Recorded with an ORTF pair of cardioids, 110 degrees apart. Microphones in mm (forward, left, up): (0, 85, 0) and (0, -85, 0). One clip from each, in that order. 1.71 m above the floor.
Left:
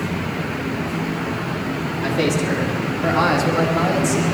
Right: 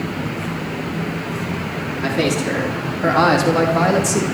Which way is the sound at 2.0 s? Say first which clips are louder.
Right 1 dB; 10° right.